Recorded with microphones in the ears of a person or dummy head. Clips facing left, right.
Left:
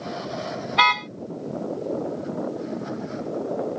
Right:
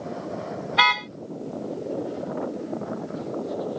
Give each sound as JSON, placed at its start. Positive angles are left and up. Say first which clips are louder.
{"t": 0.7, "sound": "a car horn", "louder": "left 2 dB", "side_deg": -5}